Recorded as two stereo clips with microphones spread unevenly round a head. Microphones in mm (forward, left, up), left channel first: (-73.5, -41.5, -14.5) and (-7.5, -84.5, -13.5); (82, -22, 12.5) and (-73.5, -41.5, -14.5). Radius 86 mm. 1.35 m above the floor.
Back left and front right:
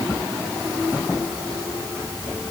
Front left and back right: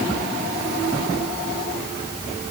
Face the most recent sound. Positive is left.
No sound to turn to.